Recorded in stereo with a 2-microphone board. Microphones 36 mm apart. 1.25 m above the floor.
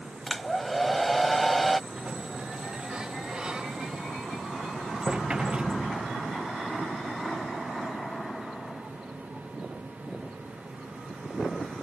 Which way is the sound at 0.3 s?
5° left (ahead or behind).